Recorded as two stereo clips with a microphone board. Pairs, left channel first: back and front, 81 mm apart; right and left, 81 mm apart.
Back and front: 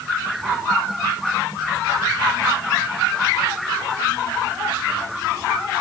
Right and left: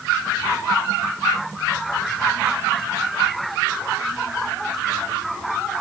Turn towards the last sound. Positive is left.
No sound to turn to.